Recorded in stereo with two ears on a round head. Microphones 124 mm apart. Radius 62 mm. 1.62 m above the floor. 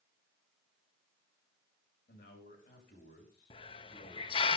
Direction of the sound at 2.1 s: 65° left (ahead or behind).